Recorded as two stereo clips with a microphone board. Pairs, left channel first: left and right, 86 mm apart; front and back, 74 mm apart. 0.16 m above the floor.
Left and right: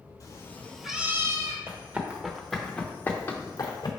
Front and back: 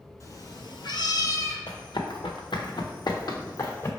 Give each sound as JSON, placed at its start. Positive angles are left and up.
{"t": 0.2, "sound": "a cat meowing", "azimuth_deg": 45, "distance_m": 0.8}
{"t": 1.7, "sound": "running footsteps", "azimuth_deg": -25, "distance_m": 1.2}